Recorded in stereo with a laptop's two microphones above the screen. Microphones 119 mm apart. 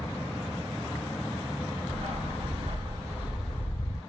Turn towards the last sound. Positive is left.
turn(degrees=35)  # may be behind; listen again after turning